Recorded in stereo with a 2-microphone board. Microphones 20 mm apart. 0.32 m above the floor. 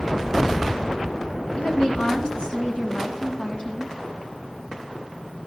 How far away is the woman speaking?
About 4 m.